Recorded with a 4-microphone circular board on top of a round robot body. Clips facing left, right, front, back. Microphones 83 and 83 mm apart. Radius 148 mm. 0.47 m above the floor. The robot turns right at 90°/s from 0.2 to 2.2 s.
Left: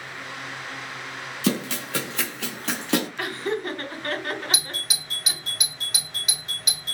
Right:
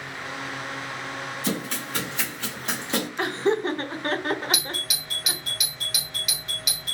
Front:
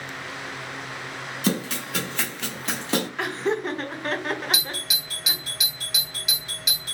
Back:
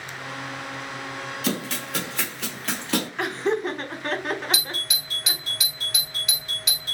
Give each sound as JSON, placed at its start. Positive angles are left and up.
{"t": 1.4, "sound": "running footsteps", "azimuth_deg": 60, "distance_m": 1.5}
{"t": 3.2, "sound": "laughter", "azimuth_deg": -90, "distance_m": 0.8}
{"t": 4.5, "sound": "a doorbell", "azimuth_deg": 70, "distance_m": 1.7}